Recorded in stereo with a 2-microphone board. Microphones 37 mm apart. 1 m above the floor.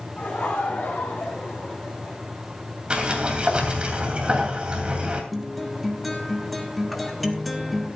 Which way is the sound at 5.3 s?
Centre (ahead or behind).